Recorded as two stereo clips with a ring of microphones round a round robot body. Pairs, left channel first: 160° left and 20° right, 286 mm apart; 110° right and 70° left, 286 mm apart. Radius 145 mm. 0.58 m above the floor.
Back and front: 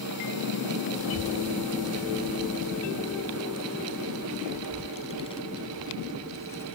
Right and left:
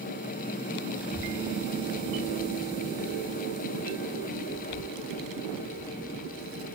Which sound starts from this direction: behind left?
A child speaking, at 1.0 s.